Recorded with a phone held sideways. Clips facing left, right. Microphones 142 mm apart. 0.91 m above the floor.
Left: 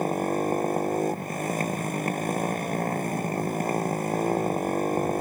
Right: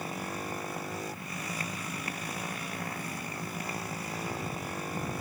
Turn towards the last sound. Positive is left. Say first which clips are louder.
# left 12 dB
turn(degrees=50)  # may be behind; listen again after turning